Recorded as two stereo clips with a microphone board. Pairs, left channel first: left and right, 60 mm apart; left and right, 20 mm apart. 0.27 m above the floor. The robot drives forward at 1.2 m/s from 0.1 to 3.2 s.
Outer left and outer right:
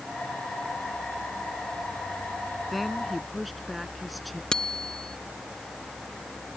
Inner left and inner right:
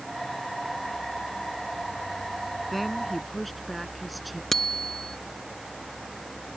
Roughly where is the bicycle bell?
Centre.